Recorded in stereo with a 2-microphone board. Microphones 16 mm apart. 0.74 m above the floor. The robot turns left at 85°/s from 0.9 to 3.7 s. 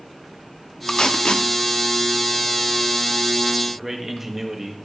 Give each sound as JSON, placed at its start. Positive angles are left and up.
{"t": 0.9, "sound": "tape being pulled", "side_deg": 40, "distance_m": 0.6}
{"t": 3.7, "sound": "a man speaking", "side_deg": -20, "distance_m": 0.9}